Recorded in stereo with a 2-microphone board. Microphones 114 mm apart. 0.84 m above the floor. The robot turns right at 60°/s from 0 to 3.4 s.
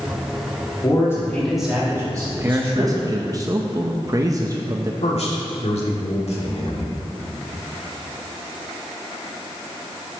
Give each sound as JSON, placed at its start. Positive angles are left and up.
{"t": 0.8, "sound": "a man speaking", "azimuth_deg": 135, "distance_m": 2.0}
{"t": 2.3, "sound": "a man speaking", "azimuth_deg": -145, "distance_m": 0.6}
{"t": 5.0, "sound": "a man speaking", "side_deg": 80, "distance_m": 1.7}